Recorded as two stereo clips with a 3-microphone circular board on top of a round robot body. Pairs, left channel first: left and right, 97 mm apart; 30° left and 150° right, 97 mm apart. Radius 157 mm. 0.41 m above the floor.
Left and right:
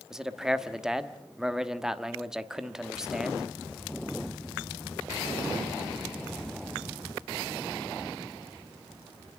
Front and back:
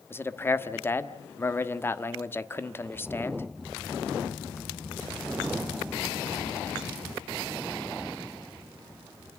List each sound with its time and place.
0.1 s a man speaking: 10° right, 1.5 m